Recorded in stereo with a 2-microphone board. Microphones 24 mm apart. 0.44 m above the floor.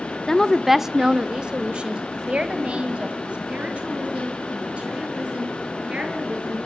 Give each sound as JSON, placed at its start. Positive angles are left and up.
{"t": 0.3, "sound": "a woman speaking", "side_deg": 25, "distance_m": 0.7}